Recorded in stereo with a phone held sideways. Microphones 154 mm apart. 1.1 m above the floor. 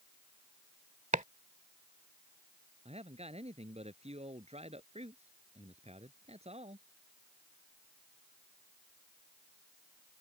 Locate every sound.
1.1 s chopping: 55° right (ahead or behind)
2.9 s a man speaking: 45° right (ahead or behind)